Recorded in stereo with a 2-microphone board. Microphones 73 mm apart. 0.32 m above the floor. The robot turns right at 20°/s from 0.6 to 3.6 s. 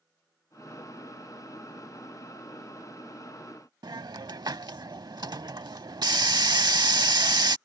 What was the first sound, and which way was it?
A hiss, 75° right (ahead or behind).